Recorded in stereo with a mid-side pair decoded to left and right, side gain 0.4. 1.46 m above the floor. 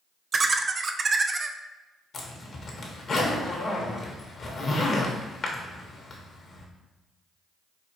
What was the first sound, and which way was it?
Laughter, 40° right.